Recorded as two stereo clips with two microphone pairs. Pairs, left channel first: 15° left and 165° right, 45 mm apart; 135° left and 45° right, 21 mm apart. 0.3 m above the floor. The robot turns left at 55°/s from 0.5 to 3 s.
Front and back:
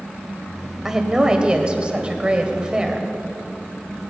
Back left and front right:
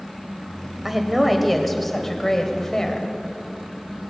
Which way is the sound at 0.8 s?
100° right.